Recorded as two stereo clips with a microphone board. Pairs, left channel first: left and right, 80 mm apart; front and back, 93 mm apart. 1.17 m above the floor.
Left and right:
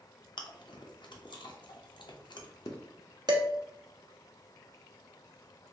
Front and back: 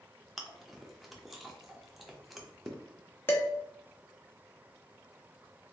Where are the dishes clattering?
65° right, 0.8 m.